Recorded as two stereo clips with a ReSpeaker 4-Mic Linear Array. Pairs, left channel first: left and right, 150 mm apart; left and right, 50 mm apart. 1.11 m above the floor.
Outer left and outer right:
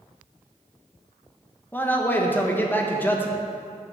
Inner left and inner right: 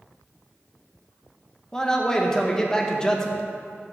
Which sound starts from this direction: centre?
A man speaking, at 1.7 s.